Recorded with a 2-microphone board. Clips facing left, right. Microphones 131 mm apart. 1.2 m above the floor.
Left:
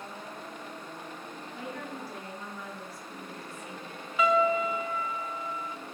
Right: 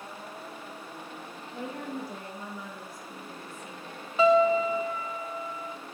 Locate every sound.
1.5 s a woman speaking: 25° right (ahead or behind), 1.8 m
4.2 s a piano: 30° right (ahead or behind), 0.5 m